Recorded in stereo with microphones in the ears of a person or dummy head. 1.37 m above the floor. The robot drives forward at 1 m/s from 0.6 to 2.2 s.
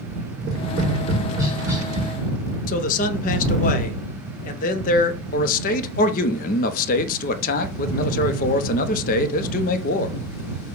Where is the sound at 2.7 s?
50° left (ahead or behind), 0.6 m.